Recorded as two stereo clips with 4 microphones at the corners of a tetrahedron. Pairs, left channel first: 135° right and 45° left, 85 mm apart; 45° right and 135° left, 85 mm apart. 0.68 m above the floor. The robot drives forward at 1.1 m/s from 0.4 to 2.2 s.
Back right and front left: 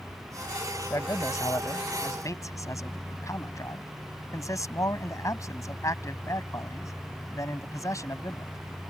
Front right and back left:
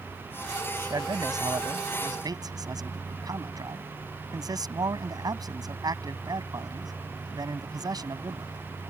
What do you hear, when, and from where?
0.9 s a man speaking: 175° left